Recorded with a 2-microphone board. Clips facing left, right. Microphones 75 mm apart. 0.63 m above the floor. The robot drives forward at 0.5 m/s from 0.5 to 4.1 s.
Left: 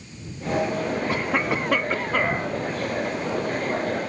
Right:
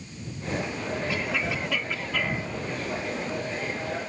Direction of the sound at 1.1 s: 45° left (ahead or behind).